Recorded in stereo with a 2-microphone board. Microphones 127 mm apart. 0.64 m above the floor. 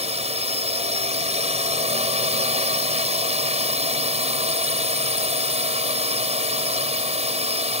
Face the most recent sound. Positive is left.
turn(degrees=-60)  # may be behind; listen again after turning